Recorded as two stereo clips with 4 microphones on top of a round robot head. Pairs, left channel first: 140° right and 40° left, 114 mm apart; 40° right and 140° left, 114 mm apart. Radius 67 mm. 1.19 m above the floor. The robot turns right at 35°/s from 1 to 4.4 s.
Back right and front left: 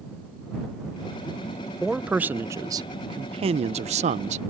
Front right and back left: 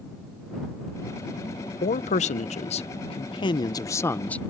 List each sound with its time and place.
1.8 s a man speaking: 50° right; by 4.4 s 40° left